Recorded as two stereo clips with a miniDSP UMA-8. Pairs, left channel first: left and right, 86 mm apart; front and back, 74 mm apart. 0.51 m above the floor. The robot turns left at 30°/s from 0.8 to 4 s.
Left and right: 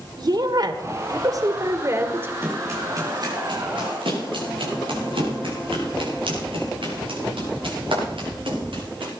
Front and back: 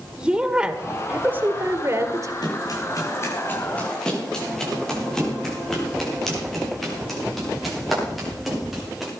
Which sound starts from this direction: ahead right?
Running footsteps, at 2.4 s.